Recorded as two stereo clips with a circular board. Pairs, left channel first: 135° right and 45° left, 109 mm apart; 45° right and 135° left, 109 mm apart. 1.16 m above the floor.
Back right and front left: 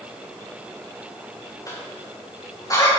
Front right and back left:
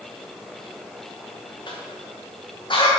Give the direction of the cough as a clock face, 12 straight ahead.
3 o'clock.